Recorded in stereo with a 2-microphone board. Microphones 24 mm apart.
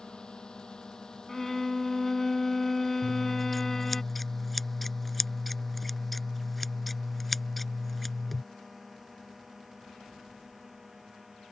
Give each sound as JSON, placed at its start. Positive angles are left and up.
{"t": 0.0, "sound": "a drone", "side_deg": 35}
{"t": 1.3, "sound": "a violin", "side_deg": 15}
{"t": 3.0, "sound": "scissors", "side_deg": 5}